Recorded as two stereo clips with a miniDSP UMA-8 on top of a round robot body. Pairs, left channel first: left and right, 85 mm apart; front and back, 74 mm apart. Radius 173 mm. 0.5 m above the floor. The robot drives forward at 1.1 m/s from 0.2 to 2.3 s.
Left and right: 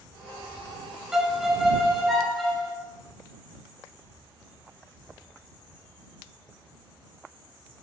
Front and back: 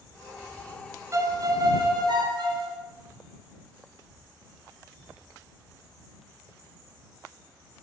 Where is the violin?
170° right, 1.0 m; by 2.8 s 175° right, 2 m.